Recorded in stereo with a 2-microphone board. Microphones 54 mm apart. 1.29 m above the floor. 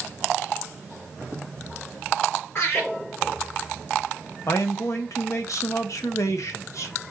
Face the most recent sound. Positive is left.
turn(degrees=70)  # may be behind; listen again after turning